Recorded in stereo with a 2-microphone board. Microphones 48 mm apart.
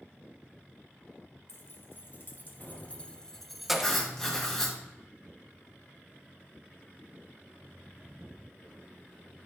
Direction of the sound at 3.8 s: 10° left (ahead or behind).